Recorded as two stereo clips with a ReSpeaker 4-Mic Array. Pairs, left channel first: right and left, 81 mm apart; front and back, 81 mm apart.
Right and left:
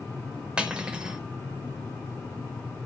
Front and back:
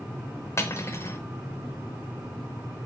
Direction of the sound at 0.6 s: 25° left.